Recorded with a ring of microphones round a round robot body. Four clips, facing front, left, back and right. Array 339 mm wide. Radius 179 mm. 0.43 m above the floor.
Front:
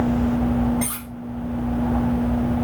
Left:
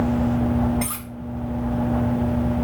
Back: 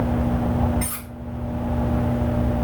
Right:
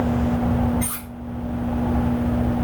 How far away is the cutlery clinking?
About 2.5 m.